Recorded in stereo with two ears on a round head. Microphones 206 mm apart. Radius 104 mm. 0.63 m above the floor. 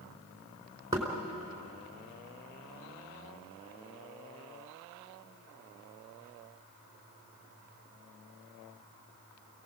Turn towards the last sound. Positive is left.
turn(degrees=-15)  # may be behind; listen again after turning